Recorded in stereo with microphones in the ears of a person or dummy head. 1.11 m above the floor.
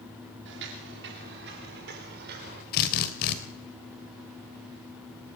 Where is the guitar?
I don't hear a guitar.